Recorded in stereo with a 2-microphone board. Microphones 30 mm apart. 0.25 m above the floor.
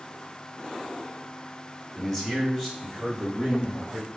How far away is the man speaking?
About 1.3 m.